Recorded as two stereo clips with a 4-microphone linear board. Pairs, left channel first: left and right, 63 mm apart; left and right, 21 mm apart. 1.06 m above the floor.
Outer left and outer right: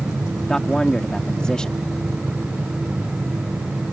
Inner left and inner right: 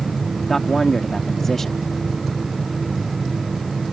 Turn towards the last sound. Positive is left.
turn(degrees=10)  # may be behind; listen again after turning